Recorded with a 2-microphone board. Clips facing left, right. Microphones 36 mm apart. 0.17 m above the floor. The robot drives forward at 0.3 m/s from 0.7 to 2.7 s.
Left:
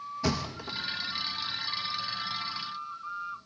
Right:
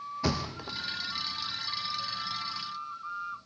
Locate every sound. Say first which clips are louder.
0.2 s a thud: left 1 dB; 10° right (ahead or behind), 1.4 m